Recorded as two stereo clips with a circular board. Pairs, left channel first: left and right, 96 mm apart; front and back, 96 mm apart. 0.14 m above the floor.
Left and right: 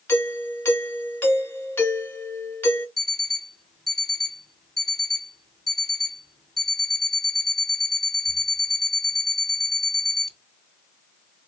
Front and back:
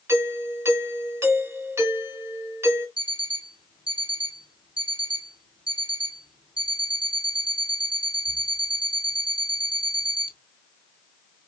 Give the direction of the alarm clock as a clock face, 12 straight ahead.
6 o'clock.